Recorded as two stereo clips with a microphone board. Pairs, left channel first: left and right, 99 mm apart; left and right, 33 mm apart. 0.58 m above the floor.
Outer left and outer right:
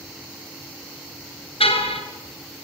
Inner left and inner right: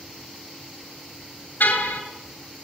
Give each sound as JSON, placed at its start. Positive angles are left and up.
{"t": 1.6, "sound": "a car horn", "side_deg": 65, "distance_m": 3.5}